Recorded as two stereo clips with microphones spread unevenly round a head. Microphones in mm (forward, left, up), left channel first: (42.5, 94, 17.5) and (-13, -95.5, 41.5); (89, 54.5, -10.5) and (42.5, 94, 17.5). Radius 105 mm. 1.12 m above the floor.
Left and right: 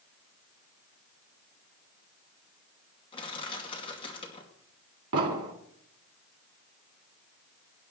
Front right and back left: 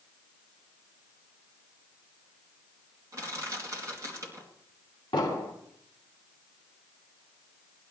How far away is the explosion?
About 2 m.